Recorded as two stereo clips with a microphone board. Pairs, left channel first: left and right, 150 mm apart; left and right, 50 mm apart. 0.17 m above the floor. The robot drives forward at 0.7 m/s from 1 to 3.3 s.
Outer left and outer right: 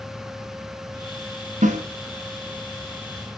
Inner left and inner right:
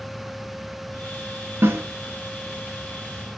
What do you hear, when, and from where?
1.6 s a snare drum: 55° right (ahead or behind), 1.2 m